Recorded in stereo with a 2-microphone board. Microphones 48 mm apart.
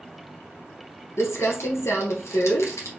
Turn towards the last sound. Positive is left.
turn(degrees=70)  # may be behind; listen again after turning